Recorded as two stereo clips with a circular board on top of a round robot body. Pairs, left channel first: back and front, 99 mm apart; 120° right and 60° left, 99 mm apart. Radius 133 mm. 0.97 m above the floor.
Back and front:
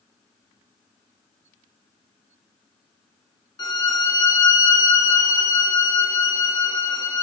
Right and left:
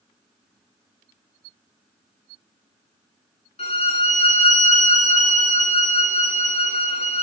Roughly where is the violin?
Behind right.